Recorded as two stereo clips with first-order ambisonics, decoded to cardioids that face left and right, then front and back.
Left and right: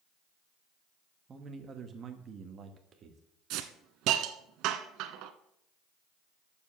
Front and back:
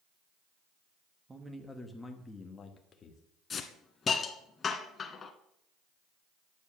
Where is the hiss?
65° right, 1.1 m.